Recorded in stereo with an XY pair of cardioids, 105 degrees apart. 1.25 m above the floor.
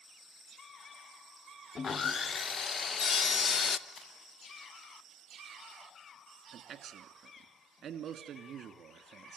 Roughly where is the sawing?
Ahead left.